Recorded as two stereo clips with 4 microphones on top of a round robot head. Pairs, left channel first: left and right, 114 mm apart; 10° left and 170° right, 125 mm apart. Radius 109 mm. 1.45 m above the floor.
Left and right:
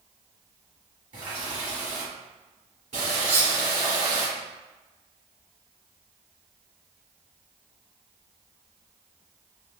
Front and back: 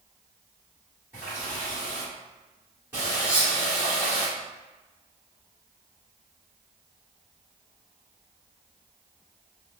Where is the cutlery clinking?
110° right, 0.9 m.